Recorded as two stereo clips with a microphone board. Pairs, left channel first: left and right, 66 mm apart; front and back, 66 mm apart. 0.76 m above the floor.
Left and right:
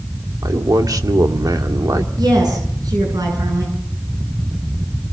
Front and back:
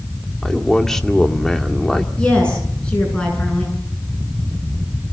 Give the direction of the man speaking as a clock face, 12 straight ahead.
3 o'clock.